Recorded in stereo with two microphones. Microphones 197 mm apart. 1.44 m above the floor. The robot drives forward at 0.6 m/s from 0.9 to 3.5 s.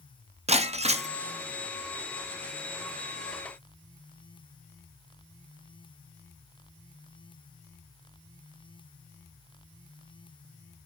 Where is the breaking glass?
35° right (ahead or behind), 0.5 m.